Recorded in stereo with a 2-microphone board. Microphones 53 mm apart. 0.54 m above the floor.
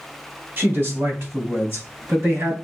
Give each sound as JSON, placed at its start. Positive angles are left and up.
{"t": 0.6, "sound": "a man speaking", "side_deg": -50, "distance_m": 2.5}